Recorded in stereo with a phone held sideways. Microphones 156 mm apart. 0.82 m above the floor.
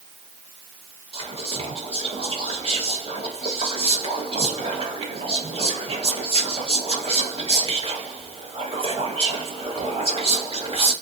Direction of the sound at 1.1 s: 40° right (ahead or behind).